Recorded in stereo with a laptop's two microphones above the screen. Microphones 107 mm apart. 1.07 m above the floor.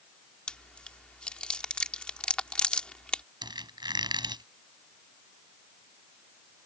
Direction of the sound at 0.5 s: 10° left (ahead or behind).